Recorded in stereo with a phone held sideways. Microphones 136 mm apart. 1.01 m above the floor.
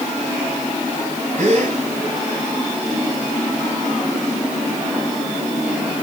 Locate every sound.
1.4 s a gasp: 55° right (ahead or behind), 9 m